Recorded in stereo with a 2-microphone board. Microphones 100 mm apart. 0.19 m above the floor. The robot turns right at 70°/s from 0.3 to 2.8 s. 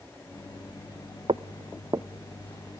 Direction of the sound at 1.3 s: 75° right (ahead or behind).